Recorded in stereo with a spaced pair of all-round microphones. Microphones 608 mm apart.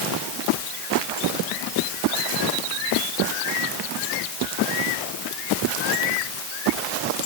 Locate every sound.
Only background noise.